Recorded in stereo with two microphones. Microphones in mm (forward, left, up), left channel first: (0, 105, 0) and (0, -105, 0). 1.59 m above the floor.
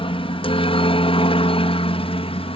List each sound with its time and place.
0.0 s a helicopter: 25° left (ahead or behind)